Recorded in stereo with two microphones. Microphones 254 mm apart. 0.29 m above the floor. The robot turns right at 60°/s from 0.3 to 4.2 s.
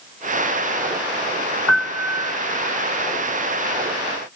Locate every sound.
1.7 s a piano: 100° left, 0.6 m; by 2.3 s 135° left, 0.6 m